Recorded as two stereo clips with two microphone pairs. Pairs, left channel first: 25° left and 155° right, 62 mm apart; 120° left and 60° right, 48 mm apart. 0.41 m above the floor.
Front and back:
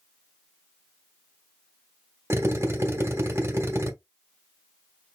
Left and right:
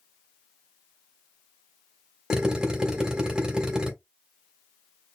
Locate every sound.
2.3 s a drill: 130° right, 2.0 m